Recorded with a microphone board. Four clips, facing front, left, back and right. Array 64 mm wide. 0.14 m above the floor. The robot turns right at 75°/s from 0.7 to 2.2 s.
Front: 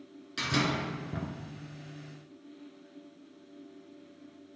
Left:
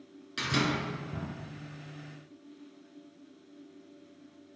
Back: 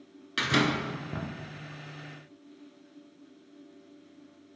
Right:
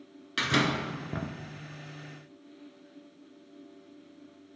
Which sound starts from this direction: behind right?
A door slam, at 0.4 s.